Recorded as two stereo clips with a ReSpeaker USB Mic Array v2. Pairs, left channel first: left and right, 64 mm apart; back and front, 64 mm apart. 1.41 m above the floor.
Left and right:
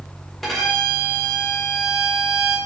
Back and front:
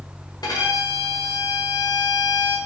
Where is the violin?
Straight behind, 1.0 m.